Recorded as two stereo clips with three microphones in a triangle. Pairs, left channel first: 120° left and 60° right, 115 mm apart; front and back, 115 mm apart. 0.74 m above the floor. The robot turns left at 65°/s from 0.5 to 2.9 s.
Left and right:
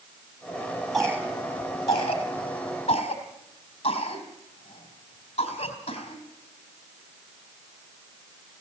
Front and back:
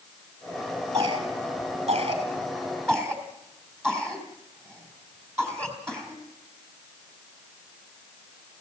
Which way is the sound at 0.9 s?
120° right.